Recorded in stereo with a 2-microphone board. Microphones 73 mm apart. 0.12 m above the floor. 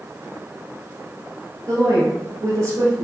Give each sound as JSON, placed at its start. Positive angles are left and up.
{"t": 1.7, "sound": "a woman speaking", "side_deg": -35, "distance_m": 1.5}